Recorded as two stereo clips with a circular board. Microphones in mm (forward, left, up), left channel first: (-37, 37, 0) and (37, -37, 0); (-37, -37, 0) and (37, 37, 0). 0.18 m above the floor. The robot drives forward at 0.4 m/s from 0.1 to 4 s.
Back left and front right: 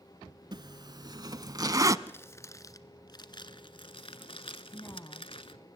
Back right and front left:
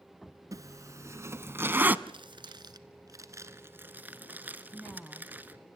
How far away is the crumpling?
About 1.1 m.